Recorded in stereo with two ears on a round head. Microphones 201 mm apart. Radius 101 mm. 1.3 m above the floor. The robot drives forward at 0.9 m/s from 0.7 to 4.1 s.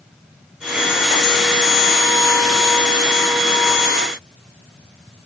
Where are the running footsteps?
No running footsteps in this recording.